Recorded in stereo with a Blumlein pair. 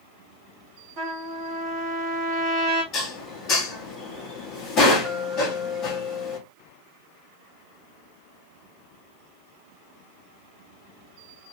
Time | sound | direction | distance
1.0 | a trumpet | 35° right | 1.4 m
2.9 | dishes clattering | 30° left | 1.2 m